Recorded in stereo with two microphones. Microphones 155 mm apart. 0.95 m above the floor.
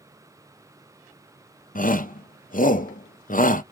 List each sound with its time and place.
1.8 s a shout: 65° left (ahead or behind), 0.6 m